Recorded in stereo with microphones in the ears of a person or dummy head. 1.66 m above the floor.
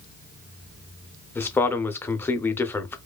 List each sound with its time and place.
1.4 s a man speaking: 15° left (ahead or behind), 0.6 m